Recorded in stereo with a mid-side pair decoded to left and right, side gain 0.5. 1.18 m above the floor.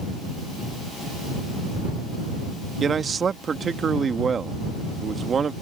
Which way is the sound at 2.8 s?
40° right.